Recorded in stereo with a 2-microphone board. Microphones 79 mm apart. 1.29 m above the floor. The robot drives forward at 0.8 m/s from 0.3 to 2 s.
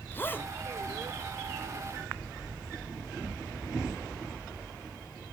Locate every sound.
0.1 s a zipper: 25° left (ahead or behind), 1.5 m